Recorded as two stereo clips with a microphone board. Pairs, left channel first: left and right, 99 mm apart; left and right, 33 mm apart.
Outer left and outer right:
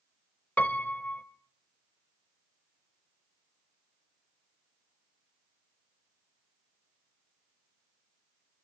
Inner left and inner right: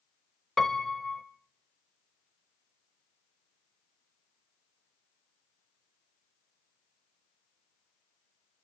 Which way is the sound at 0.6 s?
15° left (ahead or behind).